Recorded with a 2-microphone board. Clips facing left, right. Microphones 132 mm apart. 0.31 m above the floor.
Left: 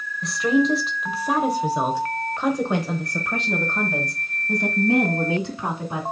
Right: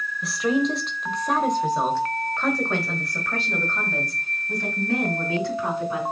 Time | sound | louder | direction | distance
0.2 | a woman speaking | left 3 dB | 5° right (ahead or behind) | 1.2 m